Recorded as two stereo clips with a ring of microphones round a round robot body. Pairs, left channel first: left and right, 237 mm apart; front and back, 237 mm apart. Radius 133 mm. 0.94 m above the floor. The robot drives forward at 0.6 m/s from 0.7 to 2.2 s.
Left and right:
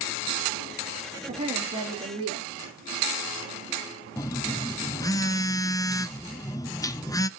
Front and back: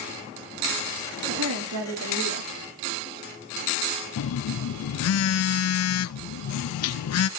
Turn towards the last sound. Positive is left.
turn(degrees=15)